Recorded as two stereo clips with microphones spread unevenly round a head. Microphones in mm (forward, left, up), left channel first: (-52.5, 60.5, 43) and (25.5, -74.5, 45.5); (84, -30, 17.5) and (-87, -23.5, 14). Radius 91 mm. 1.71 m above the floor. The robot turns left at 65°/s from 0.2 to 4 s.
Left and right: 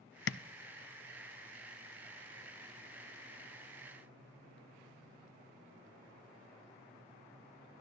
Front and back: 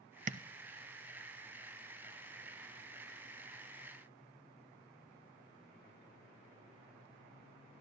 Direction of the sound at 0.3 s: 125° left.